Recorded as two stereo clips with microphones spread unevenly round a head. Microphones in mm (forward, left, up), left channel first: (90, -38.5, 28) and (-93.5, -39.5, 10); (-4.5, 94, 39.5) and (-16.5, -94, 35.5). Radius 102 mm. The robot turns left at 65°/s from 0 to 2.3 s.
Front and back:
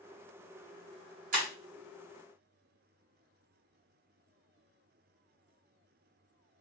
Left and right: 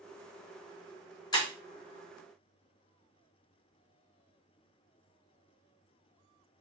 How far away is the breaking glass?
About 1.6 m.